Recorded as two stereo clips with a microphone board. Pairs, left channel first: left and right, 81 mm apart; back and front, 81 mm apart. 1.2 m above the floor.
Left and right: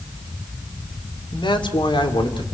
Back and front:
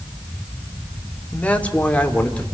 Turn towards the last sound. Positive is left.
turn(degrees=105)